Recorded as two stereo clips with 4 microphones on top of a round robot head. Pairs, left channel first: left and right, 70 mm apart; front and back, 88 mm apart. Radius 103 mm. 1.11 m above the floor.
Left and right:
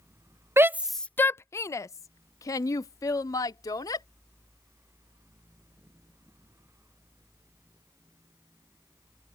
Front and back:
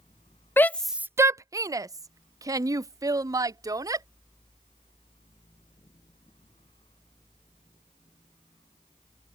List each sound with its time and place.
0.6 s a shout: 55° right; by 4.0 s 135° left